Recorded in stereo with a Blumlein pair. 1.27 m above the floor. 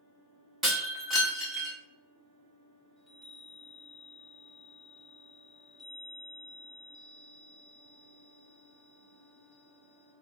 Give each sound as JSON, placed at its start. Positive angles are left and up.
{"t": 0.6, "sound": "breaking glass", "azimuth_deg": -15, "distance_m": 1.6}
{"t": 3.0, "sound": "a chime", "azimuth_deg": -10, "distance_m": 1.2}